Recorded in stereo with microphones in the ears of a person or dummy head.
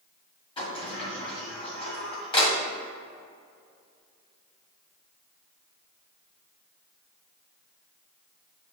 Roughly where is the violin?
I don't hear a violin.